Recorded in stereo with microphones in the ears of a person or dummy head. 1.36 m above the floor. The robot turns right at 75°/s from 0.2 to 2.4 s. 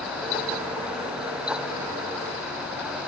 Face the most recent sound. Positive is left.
No sound to turn to.